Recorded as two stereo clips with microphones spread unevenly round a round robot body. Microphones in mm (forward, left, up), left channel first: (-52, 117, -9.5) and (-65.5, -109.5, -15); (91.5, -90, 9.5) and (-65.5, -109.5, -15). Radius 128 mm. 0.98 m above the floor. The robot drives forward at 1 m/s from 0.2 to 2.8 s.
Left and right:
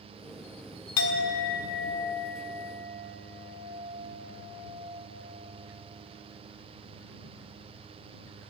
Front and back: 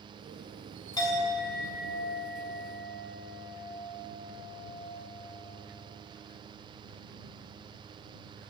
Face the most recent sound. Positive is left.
turn(degrees=160)